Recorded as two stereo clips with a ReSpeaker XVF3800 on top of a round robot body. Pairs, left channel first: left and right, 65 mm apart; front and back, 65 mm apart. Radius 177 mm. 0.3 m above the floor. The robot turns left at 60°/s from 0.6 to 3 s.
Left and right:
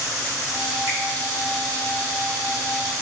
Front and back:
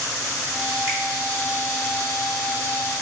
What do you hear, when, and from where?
0.9 s a finger snap: 145° right, 1.8 m; by 1.0 s 150° right, 1.8 m